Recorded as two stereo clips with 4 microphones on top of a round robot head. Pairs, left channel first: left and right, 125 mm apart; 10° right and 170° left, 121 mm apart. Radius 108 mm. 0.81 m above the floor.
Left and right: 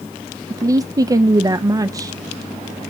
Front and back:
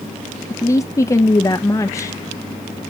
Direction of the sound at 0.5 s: 50° right.